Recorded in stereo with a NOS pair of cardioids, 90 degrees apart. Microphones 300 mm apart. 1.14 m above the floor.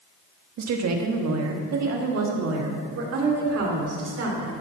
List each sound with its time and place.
0.6 s a woman speaking: 60° right, 1.6 m; by 4.5 s 55° right, 3.5 m